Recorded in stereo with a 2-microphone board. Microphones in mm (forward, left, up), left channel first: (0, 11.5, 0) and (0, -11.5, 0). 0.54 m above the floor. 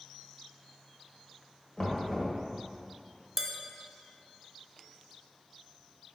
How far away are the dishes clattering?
About 0.7 m.